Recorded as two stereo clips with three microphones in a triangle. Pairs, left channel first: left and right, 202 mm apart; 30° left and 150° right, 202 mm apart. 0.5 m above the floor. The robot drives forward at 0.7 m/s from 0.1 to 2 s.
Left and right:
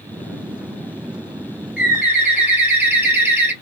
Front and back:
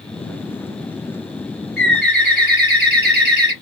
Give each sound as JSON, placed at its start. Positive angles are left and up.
{"t": 1.8, "sound": "a bird", "azimuth_deg": -170, "distance_m": 2.5}